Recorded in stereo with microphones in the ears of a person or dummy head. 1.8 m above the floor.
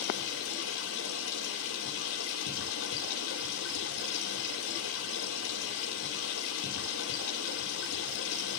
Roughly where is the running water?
Left.